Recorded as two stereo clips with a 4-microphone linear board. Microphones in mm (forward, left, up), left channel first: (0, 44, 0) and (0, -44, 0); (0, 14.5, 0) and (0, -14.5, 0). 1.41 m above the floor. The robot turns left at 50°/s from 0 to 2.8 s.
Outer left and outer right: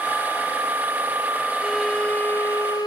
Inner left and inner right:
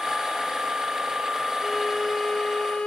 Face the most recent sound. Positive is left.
turn(degrees=130)